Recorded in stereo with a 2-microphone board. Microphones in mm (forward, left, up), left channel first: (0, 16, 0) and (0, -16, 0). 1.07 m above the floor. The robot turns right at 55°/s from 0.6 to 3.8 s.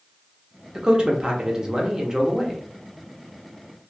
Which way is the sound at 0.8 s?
20° right (ahead or behind).